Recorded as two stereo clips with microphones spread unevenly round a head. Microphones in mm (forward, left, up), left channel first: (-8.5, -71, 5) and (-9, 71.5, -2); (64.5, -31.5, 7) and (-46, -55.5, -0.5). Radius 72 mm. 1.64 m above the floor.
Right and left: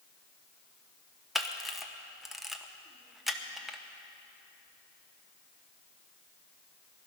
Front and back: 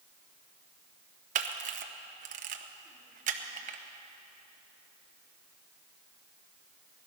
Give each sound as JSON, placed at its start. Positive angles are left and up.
{"t": 1.4, "sound": "a camera shutter", "azimuth_deg": 180, "distance_m": 0.9}